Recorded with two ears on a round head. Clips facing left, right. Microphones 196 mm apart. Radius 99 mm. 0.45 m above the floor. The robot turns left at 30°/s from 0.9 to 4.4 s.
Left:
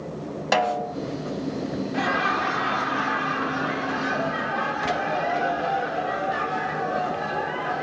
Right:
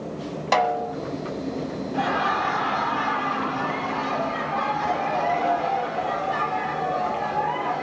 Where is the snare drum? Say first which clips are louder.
Right 1 dB; 10° left (ahead or behind), 1.2 m.